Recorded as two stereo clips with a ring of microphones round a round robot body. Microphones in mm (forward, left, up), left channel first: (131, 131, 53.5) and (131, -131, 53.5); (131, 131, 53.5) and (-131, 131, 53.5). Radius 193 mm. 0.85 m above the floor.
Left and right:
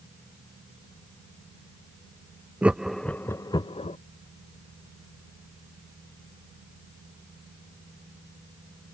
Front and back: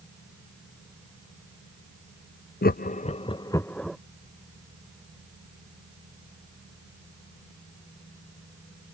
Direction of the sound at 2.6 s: 10° right.